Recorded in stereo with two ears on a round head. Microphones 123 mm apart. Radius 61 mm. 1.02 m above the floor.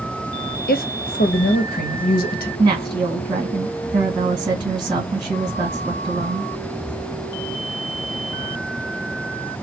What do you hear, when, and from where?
0.7 s a woman speaking: 70° left (ahead or behind), 0.7 m
2.6 s a woman speaking: 35° right (ahead or behind), 1.5 m